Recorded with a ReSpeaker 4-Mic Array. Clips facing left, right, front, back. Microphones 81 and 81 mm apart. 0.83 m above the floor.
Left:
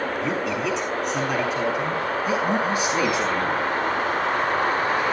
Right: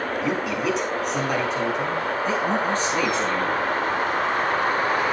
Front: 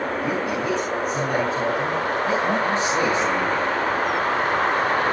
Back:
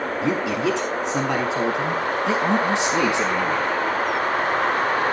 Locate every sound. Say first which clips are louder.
0.2 s a man speaking: right 3 dB, back 5 dB; 175° right, 6 m; by 3.7 s 165° left, 7 m